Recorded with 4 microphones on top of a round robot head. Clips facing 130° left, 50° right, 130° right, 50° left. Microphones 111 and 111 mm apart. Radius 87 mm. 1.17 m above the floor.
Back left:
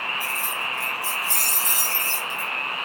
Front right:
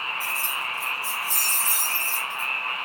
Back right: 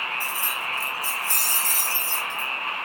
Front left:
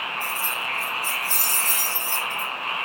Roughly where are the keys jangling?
Behind right.